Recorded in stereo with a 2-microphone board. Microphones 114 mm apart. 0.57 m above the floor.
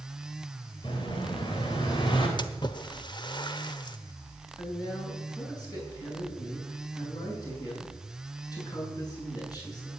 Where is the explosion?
50° left (ahead or behind), 3.5 m.